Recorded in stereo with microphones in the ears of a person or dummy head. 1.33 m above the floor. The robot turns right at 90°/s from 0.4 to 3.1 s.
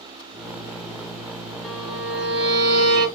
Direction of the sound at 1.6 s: 175° left.